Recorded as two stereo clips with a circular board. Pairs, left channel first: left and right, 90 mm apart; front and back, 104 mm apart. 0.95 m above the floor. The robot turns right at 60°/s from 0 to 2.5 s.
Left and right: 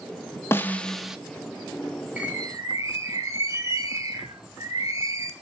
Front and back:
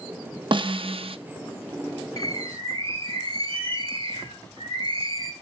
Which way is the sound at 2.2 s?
165° right.